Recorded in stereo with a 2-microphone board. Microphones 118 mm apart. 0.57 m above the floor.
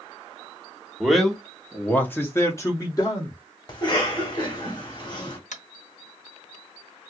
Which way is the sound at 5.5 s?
80° left.